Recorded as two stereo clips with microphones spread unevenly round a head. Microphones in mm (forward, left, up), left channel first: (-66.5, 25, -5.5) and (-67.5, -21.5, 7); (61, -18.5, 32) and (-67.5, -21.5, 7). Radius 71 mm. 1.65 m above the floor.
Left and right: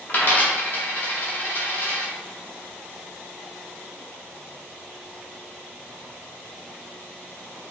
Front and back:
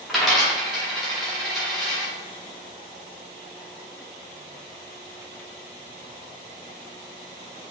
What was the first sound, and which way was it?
A dropped coin, 60° left.